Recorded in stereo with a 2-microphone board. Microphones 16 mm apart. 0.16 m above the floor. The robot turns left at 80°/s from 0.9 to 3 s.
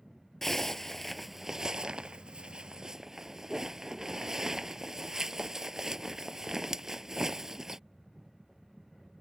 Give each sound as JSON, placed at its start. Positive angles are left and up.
{"t": 0.4, "sound": "a zipper", "azimuth_deg": 20}